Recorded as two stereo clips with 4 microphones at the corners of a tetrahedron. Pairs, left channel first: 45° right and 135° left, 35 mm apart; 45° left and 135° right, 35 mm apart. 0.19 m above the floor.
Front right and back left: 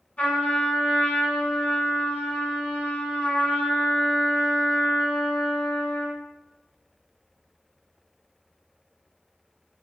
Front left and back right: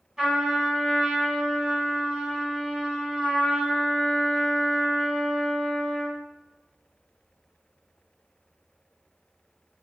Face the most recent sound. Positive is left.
turn(degrees=-75)